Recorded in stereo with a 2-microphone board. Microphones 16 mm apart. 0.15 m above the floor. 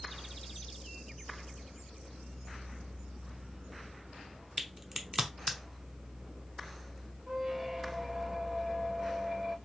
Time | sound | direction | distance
4.6 | a crack | 20° right (ahead or behind) | 0.7 m
7.3 | a squeak | 25° right (ahead or behind) | 0.6 m